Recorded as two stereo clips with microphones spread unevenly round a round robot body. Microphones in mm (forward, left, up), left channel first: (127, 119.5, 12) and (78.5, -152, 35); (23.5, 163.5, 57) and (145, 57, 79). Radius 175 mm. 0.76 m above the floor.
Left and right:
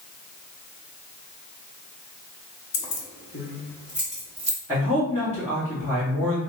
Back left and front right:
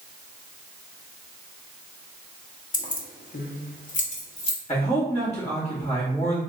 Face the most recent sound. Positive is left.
turn(degrees=175)